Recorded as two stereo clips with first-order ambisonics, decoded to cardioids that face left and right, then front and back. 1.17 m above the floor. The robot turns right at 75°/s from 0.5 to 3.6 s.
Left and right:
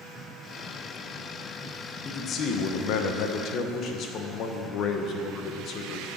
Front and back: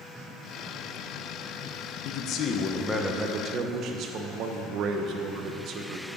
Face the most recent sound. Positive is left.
turn(degrees=135)